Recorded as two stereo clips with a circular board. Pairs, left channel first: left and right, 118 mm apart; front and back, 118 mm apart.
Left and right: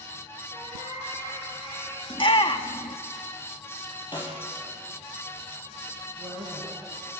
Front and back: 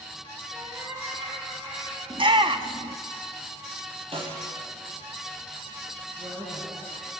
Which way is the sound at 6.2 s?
160° left.